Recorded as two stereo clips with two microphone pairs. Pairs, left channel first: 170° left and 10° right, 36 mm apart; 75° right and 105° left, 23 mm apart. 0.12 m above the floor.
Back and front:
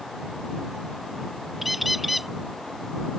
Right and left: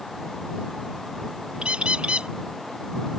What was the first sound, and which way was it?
A bird, 75° left.